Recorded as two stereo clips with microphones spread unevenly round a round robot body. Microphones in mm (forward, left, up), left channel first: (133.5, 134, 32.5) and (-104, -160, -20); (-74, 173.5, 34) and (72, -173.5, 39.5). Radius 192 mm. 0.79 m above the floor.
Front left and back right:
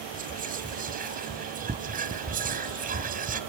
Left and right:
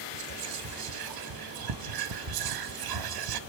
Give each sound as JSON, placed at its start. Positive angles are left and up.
{"t": 0.1, "sound": "whispering", "azimuth_deg": -70, "distance_m": 1.1}